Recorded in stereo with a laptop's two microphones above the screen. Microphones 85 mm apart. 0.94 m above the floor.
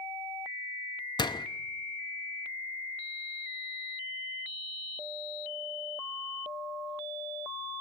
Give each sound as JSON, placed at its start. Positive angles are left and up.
{"t": 1.2, "sound": "a door slam", "side_deg": 50, "distance_m": 0.8}